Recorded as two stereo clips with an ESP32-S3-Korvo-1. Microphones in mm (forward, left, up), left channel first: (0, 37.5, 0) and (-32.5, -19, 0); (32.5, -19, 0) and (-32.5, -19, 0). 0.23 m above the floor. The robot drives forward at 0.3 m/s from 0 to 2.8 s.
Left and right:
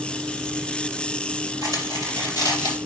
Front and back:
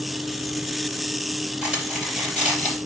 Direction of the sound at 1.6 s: 100° right.